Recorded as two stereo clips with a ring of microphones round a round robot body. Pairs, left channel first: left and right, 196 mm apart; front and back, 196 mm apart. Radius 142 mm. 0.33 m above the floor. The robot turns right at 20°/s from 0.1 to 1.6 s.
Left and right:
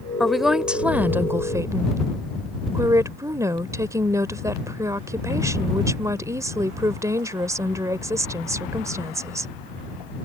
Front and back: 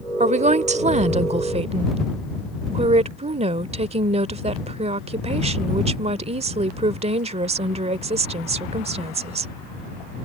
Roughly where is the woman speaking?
Behind.